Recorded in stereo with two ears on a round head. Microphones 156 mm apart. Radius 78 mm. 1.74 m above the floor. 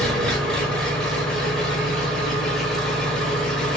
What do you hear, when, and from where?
0.0 s an engine running: 5° left (ahead or behind), 0.7 m